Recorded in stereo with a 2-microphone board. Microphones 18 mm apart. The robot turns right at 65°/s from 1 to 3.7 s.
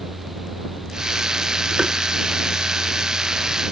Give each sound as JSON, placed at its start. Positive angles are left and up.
{"t": 1.8, "sound": "tapping", "side_deg": -70}